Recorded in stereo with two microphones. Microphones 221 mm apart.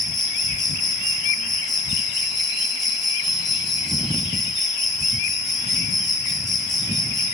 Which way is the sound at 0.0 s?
Centre (ahead or behind).